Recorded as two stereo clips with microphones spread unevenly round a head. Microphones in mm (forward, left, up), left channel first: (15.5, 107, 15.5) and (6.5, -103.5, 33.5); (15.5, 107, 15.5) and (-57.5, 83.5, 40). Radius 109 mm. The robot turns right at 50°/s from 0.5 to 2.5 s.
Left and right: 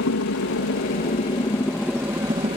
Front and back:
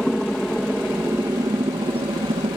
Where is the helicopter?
105° left; by 2.6 s 155° right.